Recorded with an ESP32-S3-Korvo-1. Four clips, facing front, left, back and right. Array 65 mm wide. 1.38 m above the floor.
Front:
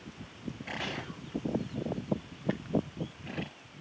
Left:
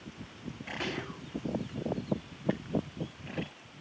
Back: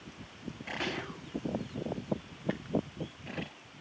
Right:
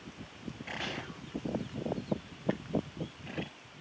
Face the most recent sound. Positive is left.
turn(degrees=150)